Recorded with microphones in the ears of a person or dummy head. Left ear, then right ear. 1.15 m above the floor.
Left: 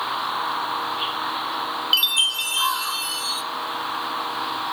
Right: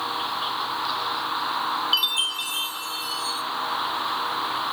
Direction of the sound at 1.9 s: 15° left (ahead or behind).